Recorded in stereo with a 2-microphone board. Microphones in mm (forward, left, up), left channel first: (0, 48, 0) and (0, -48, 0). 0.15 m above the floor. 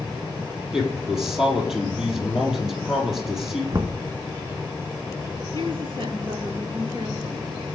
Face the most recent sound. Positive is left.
turn(degrees=-60)  # may be behind; listen again after turning